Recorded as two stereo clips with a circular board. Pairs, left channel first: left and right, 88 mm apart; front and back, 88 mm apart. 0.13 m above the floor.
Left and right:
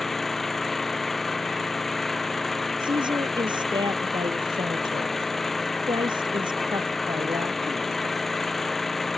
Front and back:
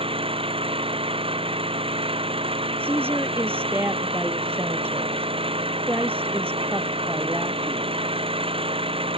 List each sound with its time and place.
0.0 s an engine running: straight behind
2.8 s a woman speaking: 115° right